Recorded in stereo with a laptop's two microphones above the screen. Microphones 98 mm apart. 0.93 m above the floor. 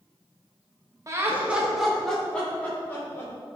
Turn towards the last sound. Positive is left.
turn(degrees=25)  # may be behind; listen again after turning